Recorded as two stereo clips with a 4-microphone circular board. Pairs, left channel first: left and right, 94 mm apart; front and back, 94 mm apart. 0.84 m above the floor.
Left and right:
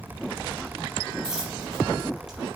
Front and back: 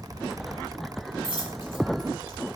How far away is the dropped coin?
About 5.5 m.